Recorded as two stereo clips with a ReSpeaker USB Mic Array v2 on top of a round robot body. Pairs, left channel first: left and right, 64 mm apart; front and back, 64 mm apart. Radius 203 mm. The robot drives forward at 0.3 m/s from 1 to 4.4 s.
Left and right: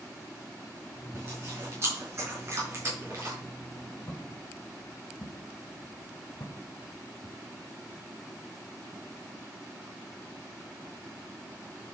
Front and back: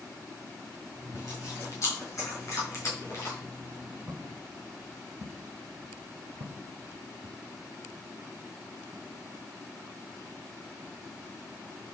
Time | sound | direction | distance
1.1 | chewing | 40° right | 5 m
4.1 | footsteps | 135° left | 2 m